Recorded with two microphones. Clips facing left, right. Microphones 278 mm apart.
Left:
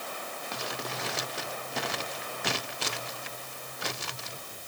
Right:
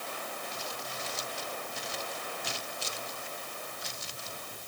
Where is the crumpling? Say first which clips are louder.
Left 4 dB; 75° left (ahead or behind).